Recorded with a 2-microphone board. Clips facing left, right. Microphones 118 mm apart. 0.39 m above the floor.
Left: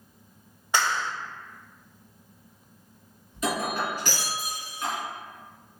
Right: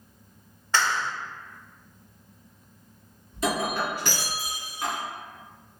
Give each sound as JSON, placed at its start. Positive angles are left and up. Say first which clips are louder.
{"t": 0.7, "sound": "a clap", "louder": "even", "side_deg": 15, "distance_m": 0.8}
{"t": 3.3, "sound": "breaking glass", "louder": "right 1 dB", "side_deg": -35, "distance_m": 1.9}